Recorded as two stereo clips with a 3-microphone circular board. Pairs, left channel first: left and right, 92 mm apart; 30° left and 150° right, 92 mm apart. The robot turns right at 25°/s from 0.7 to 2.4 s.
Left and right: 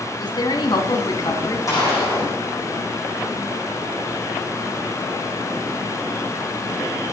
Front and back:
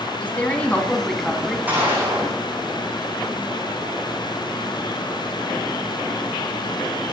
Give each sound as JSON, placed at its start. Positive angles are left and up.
{"t": 0.2, "sound": "a woman speaking", "azimuth_deg": 100, "distance_m": 2.5}
{"t": 1.7, "sound": "a gunshot", "azimuth_deg": 140, "distance_m": 9.5}